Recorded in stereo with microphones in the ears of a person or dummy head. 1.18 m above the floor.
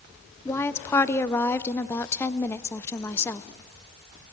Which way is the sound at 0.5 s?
15° left (ahead or behind).